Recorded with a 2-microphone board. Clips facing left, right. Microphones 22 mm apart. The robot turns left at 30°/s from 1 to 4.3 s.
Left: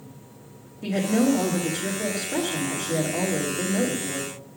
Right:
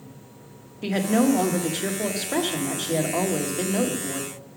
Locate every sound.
0.8 s a woman speaking: 55° right, 1.2 m; by 4.3 s 155° right, 1.2 m